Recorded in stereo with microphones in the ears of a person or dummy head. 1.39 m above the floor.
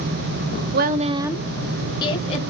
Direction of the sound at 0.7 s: 60° right (ahead or behind).